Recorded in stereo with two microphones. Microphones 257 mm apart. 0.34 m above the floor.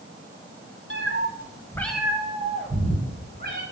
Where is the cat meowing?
60° left (ahead or behind), 1.0 m; by 3.6 s 40° right (ahead or behind), 2 m.